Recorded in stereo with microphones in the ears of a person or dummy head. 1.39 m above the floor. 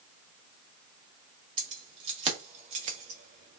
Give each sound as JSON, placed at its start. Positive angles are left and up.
{"t": 1.6, "sound": "keys jangling", "side_deg": -30, "distance_m": 1.2}